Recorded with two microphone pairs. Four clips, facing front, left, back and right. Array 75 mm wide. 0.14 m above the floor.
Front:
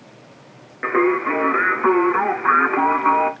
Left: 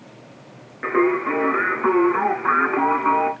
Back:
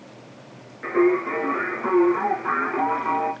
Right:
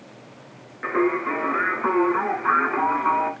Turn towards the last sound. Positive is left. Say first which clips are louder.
# left 3 dB, front 2 dB
turn(degrees=15)